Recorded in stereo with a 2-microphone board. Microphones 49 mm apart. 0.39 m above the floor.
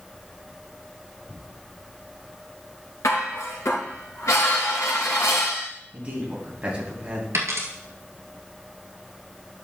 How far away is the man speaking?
About 3 m.